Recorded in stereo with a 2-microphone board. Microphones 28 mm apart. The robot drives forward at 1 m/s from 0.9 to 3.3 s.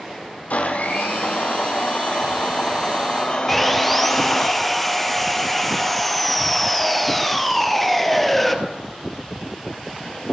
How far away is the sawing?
About 1.4 m.